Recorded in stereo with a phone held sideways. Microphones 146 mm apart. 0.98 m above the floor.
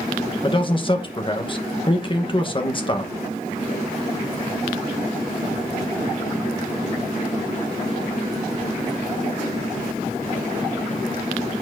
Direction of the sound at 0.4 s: 35° left (ahead or behind).